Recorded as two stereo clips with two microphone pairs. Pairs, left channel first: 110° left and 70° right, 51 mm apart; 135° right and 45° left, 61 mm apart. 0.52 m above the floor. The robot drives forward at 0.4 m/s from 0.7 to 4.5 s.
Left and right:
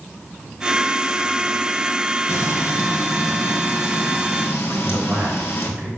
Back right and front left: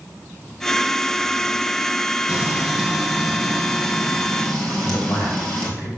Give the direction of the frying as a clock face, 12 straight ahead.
8 o'clock.